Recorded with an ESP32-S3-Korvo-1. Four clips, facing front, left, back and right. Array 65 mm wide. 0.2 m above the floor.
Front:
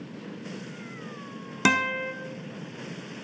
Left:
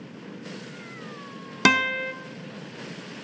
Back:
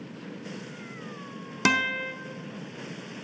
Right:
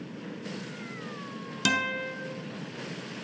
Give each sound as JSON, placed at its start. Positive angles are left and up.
{"t": 1.6, "sound": "a guitar", "azimuth_deg": 80, "distance_m": 0.6}